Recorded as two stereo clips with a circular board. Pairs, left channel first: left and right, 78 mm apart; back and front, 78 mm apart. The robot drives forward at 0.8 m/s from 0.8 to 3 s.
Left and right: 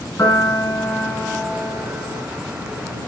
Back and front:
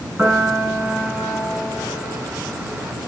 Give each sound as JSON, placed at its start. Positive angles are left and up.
{"t": 0.2, "sound": "a piano", "azimuth_deg": 45, "distance_m": 2.0}